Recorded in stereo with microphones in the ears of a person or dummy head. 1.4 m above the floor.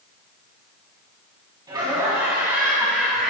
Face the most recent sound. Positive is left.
turn(degrees=0)  # may be behind; listen again after turning